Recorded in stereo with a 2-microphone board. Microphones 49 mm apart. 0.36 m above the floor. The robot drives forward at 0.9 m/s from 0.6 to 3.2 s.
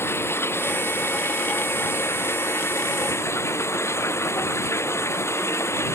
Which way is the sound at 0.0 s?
60° left (ahead or behind).